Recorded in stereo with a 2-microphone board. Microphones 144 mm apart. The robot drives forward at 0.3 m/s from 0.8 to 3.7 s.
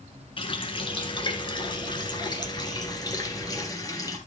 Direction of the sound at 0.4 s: 35° left (ahead or behind).